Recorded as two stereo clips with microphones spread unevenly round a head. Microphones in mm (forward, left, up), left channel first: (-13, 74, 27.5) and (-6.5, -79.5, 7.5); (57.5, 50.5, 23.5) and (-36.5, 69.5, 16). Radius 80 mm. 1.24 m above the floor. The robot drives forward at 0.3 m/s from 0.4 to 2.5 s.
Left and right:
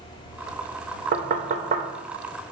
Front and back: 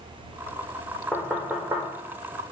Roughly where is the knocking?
Right.